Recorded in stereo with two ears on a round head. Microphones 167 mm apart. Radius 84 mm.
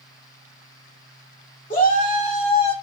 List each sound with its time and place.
1.7 s a shout: 45° left (ahead or behind), 2 m; by 2.7 s 30° left (ahead or behind), 1.9 m